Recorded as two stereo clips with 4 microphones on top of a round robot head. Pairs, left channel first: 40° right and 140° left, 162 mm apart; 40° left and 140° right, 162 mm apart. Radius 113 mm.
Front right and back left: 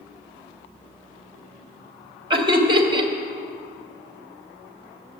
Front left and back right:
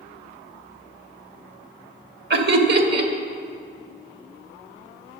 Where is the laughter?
160° right, 1.8 m.